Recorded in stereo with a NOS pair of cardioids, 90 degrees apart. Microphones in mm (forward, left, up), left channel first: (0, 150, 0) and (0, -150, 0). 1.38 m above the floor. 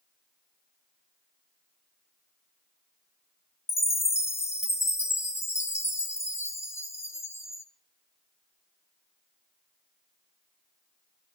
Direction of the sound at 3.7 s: 10° left.